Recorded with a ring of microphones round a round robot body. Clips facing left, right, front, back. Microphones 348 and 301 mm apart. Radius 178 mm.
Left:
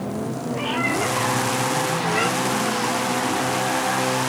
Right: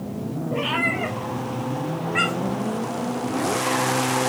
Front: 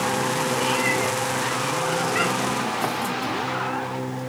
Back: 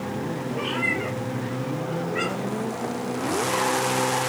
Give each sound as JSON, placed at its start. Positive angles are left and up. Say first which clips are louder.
{"t": 0.5, "sound": "a cat meowing", "louder": "left 2 dB, front 3 dB", "azimuth_deg": -55, "distance_m": 4.5}